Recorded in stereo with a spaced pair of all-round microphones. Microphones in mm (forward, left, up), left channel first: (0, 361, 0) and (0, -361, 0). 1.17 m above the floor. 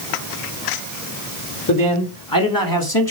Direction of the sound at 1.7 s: 25° left (ahead or behind).